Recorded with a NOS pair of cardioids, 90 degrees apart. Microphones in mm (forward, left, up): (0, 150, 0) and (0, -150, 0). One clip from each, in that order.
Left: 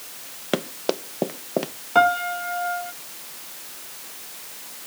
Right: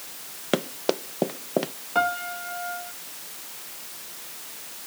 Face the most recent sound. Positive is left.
turn(degrees=35)